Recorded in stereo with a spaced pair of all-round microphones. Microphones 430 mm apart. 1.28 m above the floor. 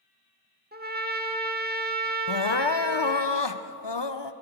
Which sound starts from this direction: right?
A trumpet, at 0.7 s.